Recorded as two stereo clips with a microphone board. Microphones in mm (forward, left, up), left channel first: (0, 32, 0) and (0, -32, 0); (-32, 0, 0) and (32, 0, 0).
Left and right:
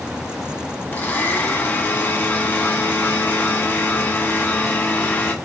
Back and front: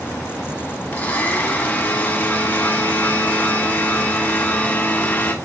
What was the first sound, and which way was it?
A blender, 135° left.